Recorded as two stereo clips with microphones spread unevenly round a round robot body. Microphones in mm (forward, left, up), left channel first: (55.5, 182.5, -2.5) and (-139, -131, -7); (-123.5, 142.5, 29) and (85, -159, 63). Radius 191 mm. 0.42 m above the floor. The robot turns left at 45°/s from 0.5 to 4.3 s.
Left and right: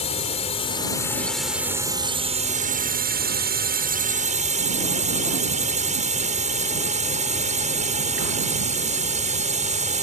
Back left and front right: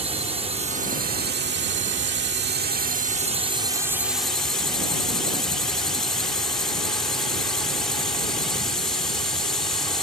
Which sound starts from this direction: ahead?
A drone, at 0.0 s.